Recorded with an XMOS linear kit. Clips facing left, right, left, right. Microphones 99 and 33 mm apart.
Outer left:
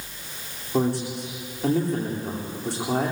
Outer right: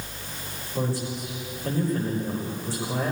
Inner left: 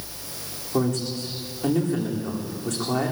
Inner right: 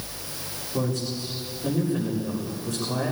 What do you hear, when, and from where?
0.7 s a man speaking: 80° left, 10 m